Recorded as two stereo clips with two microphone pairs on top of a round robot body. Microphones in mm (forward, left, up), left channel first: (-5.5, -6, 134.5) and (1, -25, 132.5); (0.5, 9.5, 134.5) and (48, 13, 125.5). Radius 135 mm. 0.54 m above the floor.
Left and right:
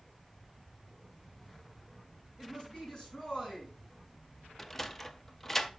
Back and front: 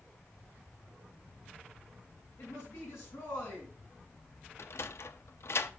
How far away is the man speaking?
About 6.5 m.